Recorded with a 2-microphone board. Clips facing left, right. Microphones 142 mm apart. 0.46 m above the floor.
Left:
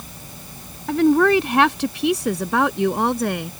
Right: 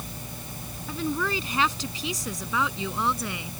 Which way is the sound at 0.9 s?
70° left (ahead or behind).